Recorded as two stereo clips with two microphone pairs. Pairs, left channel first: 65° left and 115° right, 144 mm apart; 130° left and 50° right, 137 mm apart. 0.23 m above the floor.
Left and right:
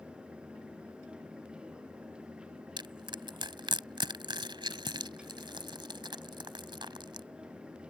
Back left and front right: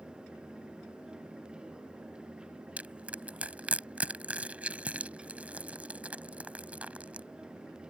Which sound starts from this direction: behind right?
Crushing, at 2.8 s.